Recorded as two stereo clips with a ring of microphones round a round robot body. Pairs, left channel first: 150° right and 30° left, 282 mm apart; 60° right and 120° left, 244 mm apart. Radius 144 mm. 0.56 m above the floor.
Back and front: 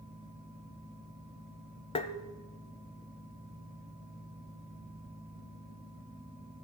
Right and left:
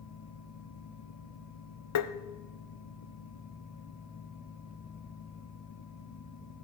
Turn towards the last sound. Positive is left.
turn(degrees=-80)